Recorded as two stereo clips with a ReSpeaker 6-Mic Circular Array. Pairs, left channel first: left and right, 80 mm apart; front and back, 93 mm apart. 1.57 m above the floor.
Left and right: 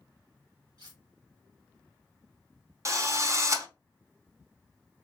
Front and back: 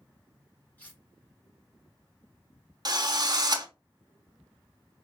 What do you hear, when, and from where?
0.8 s cutlery clinking: 70° right, 1.7 m
2.9 s a drill: 140° right, 0.7 m